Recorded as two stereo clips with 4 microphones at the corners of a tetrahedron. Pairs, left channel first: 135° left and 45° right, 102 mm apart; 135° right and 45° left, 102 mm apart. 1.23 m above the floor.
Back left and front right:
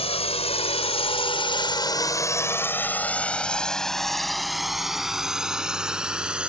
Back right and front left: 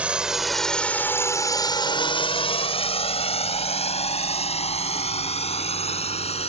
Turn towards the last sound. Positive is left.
turn(degrees=-125)